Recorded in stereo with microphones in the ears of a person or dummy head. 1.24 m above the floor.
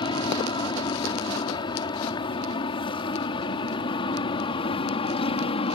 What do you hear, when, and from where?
0.0 s an aircraft: 25° left (ahead or behind); by 5.7 s 30° left (ahead or behind)